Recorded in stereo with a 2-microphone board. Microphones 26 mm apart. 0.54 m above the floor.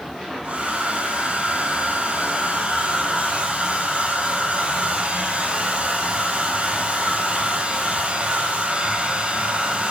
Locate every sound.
0.4 s a hair dryer: 40° right (ahead or behind), 4.5 m